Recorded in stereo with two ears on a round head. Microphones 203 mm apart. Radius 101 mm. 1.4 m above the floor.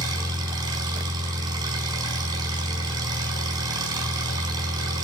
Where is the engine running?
20° right (ahead or behind), 5 m.